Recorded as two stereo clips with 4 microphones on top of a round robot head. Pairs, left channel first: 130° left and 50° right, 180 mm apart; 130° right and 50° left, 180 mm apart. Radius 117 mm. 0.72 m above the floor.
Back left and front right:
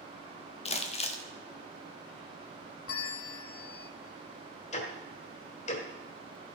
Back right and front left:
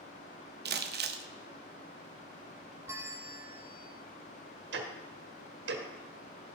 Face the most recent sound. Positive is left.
turn(degrees=75)